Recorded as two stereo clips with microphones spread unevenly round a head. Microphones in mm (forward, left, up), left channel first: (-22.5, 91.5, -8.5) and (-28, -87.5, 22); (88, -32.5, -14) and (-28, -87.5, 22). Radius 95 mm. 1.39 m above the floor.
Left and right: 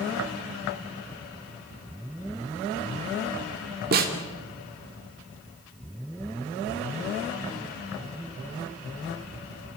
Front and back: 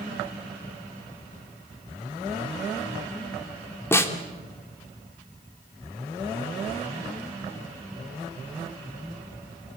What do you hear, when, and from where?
3.9 s a snare drum: 50° right, 3 m